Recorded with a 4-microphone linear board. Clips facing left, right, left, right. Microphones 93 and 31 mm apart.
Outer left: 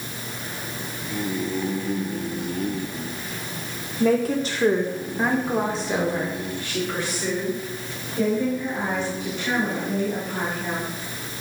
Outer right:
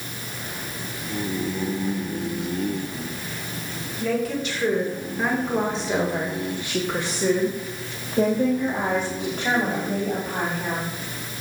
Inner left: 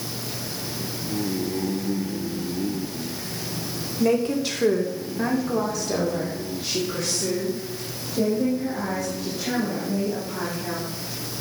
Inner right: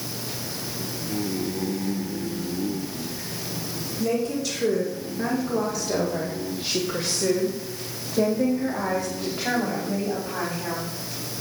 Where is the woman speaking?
45° left (ahead or behind), 2 m; by 10.9 s 55° right (ahead or behind), 5 m.